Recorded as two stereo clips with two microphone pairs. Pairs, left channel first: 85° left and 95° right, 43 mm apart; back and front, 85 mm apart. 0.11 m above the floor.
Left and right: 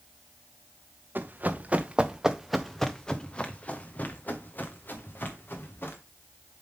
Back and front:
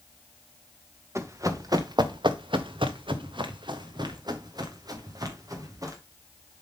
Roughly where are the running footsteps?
Ahead right.